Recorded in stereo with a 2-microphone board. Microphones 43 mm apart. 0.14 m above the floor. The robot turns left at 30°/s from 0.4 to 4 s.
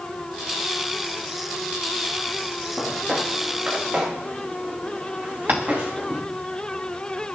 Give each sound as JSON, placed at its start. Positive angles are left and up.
{"t": 2.8, "sound": "footsteps", "side_deg": -5, "distance_m": 8.5}
{"t": 5.5, "sound": "tapping", "side_deg": -50, "distance_m": 2.5}